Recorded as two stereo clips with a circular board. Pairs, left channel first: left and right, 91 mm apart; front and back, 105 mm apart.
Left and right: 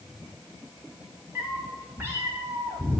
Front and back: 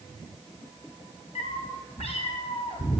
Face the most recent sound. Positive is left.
turn(degrees=-35)